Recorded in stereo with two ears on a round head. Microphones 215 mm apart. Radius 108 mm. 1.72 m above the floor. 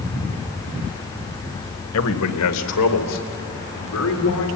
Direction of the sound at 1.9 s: 65° left (ahead or behind).